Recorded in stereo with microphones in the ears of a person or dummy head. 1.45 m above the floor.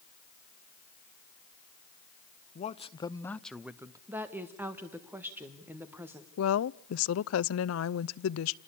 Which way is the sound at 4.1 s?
5° right (ahead or behind).